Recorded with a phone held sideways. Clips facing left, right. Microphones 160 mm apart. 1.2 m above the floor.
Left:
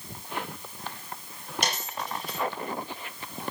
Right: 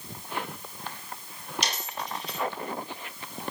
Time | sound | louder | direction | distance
1.6 | a dropped coin | left 5 dB | 55° left (ahead or behind) | 5 m